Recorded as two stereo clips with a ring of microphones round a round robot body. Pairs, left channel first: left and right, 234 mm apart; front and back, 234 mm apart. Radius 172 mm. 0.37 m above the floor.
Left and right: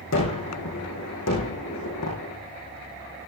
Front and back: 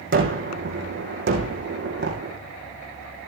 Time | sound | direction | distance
0.1 | a gunshot | 145° left | 5 m